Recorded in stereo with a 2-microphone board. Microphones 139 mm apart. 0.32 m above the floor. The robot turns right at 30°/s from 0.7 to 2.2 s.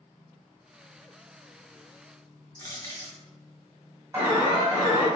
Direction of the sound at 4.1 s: 20° right (ahead or behind).